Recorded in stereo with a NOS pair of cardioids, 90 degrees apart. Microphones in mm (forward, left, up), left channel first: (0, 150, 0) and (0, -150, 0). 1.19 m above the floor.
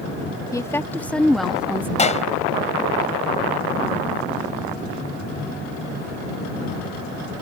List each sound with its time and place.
0.5 s a woman speaking: 10° left; by 1.9 s 5° right
2.0 s a clap: 25° left